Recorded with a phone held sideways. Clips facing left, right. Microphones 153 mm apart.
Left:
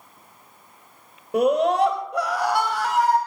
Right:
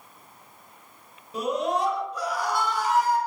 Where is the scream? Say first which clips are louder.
Left 8 dB; 70° left (ahead or behind), 4 m.